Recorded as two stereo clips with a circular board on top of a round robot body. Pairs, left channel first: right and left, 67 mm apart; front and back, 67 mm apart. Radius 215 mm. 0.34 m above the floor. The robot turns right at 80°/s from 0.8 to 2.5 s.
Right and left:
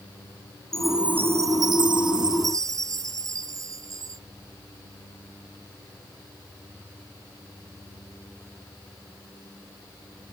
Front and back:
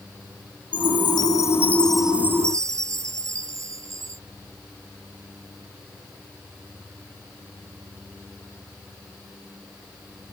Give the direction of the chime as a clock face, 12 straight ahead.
12 o'clock.